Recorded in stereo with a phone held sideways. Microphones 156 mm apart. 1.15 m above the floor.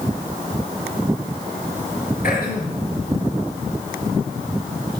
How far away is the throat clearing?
About 3 m.